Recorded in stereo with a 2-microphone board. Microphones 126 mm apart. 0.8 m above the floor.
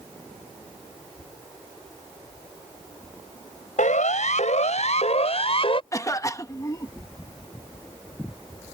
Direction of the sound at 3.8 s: 75° left (ahead or behind).